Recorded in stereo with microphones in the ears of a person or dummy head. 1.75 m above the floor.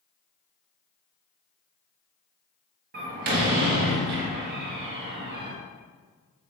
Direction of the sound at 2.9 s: 45° right (ahead or behind).